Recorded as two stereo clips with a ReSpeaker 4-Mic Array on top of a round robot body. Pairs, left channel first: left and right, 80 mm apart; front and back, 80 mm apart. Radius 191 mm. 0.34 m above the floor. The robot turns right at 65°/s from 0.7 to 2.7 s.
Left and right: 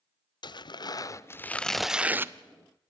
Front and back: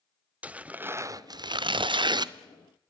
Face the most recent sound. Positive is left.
turn(degrees=-120)